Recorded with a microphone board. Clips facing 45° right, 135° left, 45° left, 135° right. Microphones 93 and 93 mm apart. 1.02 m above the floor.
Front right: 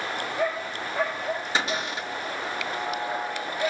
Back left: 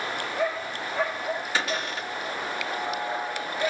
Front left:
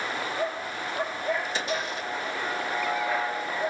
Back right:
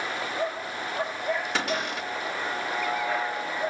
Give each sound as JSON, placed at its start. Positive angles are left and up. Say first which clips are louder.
{"t": 1.6, "sound": "a cupboard door", "louder": "front right 1 dB, back right 1 dB", "azimuth_deg": -115, "distance_m": 3.0}